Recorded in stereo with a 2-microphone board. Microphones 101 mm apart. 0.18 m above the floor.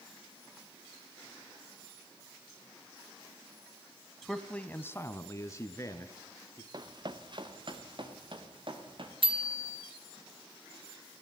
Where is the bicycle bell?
60° right (ahead or behind), 2 m.